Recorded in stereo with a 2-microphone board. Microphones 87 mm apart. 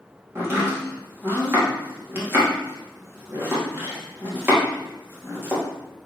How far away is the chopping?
About 3 m.